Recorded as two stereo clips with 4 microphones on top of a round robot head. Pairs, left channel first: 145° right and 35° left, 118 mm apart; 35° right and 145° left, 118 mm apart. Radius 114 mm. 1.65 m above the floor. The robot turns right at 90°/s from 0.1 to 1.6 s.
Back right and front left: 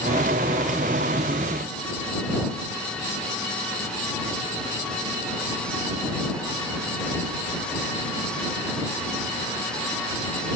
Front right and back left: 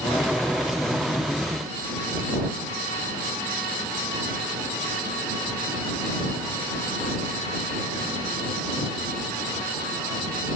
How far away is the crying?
I don't hear crying.